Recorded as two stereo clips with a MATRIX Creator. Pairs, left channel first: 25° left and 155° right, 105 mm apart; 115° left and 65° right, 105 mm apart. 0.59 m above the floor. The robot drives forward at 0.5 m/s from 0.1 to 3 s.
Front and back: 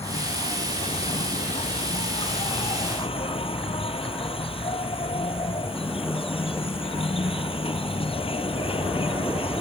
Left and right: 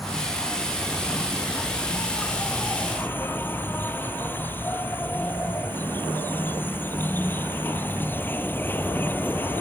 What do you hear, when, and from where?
0.0 s an insect: 20° left; by 9.6 s 40° left